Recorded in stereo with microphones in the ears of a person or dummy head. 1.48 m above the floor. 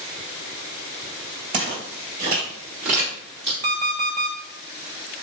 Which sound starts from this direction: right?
Footsteps, at 1.5 s.